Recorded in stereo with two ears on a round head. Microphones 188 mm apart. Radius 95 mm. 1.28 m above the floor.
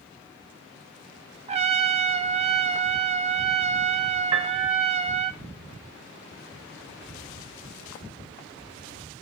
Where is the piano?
25° right (ahead or behind), 1.8 m.